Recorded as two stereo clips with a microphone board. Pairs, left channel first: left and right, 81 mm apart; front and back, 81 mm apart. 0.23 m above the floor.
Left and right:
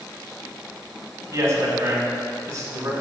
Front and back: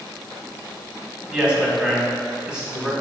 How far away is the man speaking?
About 1.5 m.